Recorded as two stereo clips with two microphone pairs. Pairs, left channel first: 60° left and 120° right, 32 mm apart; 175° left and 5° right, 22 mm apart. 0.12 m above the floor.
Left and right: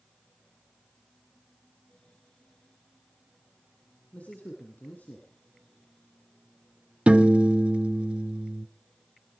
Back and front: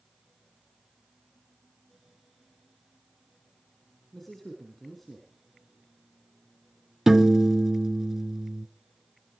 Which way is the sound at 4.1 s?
100° left.